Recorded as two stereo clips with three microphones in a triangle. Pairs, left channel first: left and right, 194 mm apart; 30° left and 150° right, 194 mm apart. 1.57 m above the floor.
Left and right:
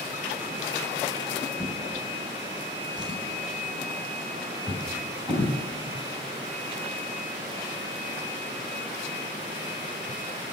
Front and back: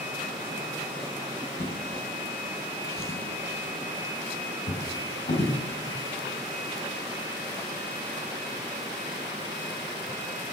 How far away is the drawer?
About 3.5 m.